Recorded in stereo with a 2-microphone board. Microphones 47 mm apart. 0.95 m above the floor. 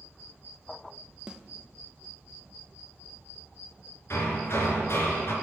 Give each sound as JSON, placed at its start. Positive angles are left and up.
{"t": 1.3, "sound": "a snare drum", "side_deg": -20, "distance_m": 0.9}
{"t": 4.1, "sound": "hammering", "side_deg": 60, "distance_m": 3.5}